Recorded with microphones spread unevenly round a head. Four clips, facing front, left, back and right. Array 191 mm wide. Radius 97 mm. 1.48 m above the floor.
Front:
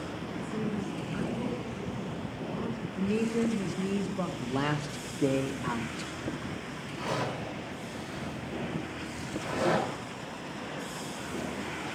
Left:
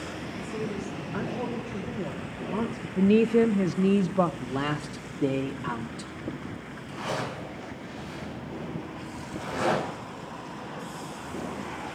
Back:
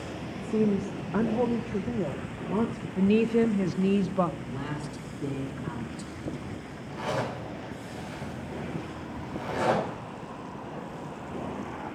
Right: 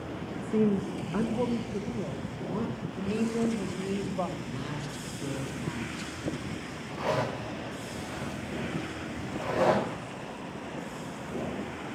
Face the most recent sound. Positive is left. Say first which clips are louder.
# right 3 dB, back 2 dB
turn(degrees=-105)